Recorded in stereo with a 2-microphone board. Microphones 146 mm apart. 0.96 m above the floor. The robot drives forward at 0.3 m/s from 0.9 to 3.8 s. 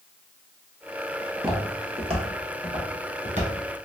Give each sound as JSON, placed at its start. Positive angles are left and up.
{"t": 1.2, "sound": "footsteps", "side_deg": -30, "distance_m": 1.1}